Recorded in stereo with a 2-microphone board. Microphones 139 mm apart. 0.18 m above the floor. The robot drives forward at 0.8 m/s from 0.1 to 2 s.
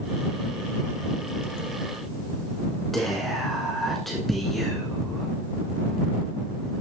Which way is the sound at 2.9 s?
Centre (ahead or behind).